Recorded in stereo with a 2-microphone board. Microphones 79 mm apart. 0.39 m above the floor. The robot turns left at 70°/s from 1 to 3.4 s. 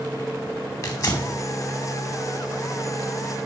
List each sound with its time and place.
0.8 s tearing paper: 45° left (ahead or behind), 2.5 m; by 1.3 s 55° left (ahead or behind), 2.5 m